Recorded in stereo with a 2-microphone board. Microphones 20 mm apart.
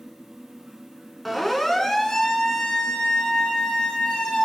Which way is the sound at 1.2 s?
5° left (ahead or behind).